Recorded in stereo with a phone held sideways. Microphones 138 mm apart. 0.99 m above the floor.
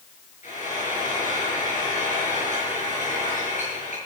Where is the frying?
65° left (ahead or behind), 7 m.